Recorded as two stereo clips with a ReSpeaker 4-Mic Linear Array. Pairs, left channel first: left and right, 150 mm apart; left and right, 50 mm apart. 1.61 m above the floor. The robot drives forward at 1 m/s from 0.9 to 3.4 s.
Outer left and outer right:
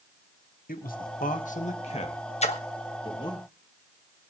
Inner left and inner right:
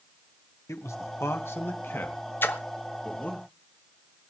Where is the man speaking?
75° left (ahead or behind), 1.8 m; by 3.4 s 30° left (ahead or behind), 3.5 m.